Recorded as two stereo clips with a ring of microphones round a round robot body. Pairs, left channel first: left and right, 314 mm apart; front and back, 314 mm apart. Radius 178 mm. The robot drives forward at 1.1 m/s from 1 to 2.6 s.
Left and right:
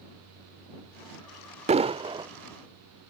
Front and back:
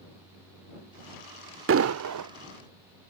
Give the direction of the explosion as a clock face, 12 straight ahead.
5 o'clock.